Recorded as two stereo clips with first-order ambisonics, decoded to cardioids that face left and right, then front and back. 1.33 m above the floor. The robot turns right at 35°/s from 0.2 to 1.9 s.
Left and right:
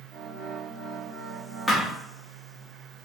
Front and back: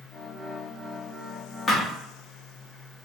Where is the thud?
30° left, 0.6 m; by 1.9 s 35° left, 0.6 m.